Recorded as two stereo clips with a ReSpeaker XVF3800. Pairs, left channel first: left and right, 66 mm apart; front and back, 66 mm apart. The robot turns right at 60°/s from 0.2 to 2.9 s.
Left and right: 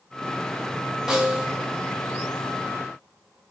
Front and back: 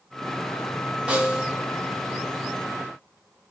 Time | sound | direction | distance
1.1 | a snare drum | 145° right | 0.6 m